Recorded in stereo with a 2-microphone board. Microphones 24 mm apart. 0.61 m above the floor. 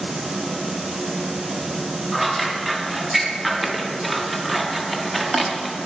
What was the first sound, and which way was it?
Scissors, 5° right (ahead or behind).